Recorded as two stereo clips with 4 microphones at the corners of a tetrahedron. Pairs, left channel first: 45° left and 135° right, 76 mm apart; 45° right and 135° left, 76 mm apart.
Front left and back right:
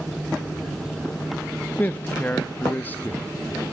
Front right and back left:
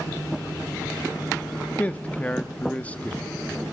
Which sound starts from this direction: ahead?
A man speaking, at 1.8 s.